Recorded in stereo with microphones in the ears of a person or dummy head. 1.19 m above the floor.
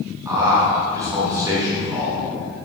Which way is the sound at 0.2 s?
15° right (ahead or behind).